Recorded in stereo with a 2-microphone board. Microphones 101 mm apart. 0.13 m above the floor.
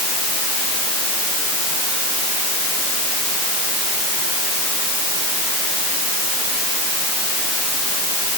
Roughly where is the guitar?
No guitar in this recording.